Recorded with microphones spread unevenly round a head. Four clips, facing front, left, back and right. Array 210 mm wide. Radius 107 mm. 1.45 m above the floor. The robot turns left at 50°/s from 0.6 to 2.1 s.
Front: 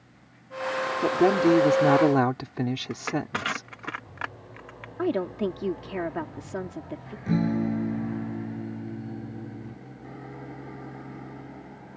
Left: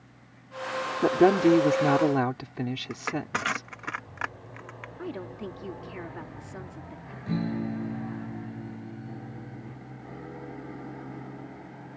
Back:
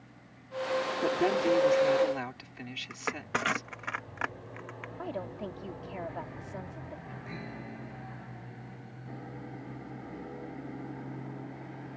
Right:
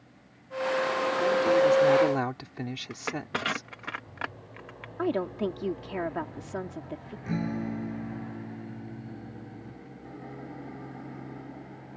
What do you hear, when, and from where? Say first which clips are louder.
1.0 s a woman speaking: left 8 dB, front 8 dB; 70° left; by 3.9 s 15° left
2.9 s crushing: left 2 dB, front 5 dB; 115° right
5.0 s a woman speaking: right 9 dB, front 12 dB; 25° right
7.3 s a guitar: left 1 dB, front 20 dB; 5° left